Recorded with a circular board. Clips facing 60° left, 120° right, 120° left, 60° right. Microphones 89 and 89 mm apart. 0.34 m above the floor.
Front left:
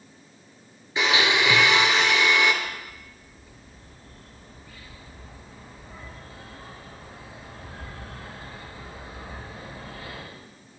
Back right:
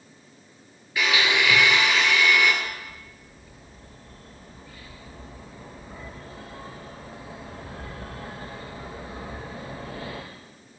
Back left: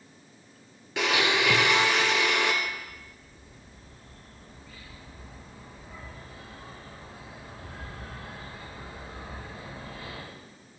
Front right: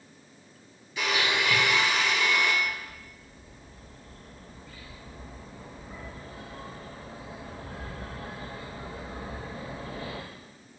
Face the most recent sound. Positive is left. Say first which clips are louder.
# even, front right 2 dB
turn(degrees=-115)